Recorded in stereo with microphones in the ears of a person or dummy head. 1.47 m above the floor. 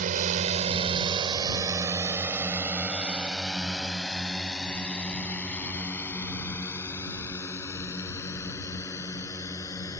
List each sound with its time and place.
0.0 s a drone: 45° right (ahead or behind); by 10.0 s 20° left (ahead or behind)